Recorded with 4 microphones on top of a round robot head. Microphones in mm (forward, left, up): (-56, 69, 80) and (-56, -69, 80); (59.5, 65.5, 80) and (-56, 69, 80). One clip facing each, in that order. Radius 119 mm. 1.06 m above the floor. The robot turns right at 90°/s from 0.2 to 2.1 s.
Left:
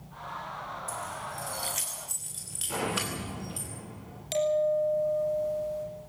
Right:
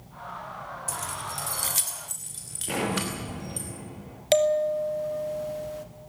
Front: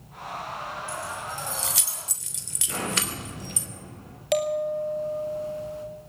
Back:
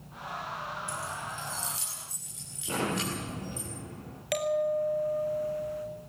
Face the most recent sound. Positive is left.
turn(degrees=-70)